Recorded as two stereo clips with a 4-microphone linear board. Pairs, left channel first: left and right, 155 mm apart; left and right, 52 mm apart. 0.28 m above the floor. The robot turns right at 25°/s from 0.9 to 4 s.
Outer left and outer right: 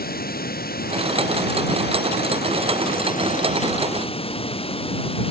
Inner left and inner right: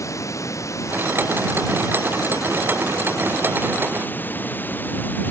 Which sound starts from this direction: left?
Running water, at 0.0 s.